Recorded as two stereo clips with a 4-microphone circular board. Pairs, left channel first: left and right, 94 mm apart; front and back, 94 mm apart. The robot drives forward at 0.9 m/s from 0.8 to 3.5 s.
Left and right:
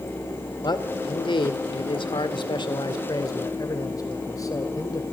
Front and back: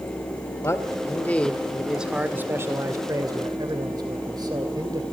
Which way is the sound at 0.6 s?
55° left.